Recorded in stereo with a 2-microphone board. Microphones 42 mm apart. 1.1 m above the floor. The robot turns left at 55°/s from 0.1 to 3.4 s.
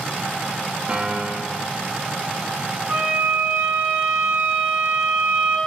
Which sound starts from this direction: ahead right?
A piano, at 0.9 s.